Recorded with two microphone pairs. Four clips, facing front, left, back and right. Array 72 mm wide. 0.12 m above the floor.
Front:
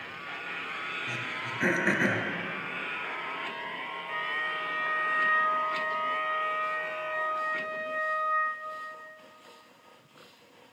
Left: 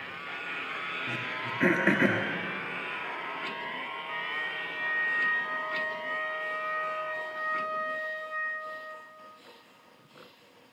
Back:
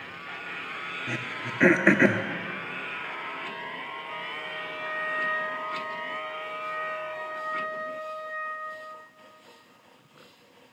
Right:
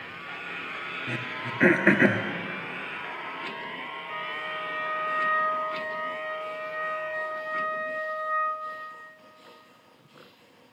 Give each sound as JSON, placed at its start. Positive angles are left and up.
{"t": 1.1, "sound": "throat clearing", "azimuth_deg": -150, "distance_m": 0.7}
{"t": 4.0, "sound": "a flute", "azimuth_deg": 75, "distance_m": 4.0}